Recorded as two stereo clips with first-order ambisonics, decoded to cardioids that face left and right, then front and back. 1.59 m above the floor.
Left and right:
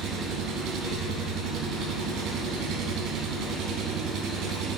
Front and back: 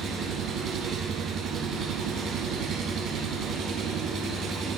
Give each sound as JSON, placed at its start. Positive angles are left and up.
{"t": 0.0, "sound": "an engine running", "azimuth_deg": -125, "distance_m": 4.0}